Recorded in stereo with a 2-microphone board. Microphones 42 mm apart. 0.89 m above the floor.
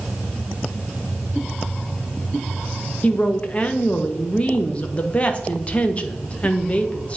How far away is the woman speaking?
About 0.8 m.